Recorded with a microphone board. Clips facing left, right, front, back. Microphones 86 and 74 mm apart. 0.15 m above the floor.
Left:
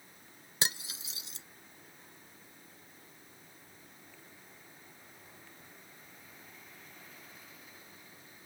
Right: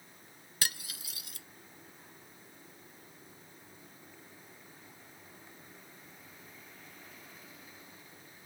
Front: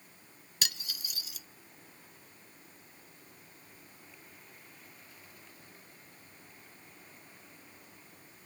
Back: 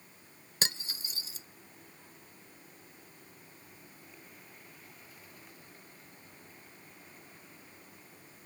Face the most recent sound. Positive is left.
turn(degrees=140)